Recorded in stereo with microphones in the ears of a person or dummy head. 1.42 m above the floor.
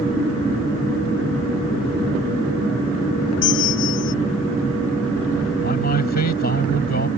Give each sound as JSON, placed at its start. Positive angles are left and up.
{"t": 3.4, "sound": "a bell", "side_deg": 65}
{"t": 5.6, "sound": "a man speaking", "side_deg": 55}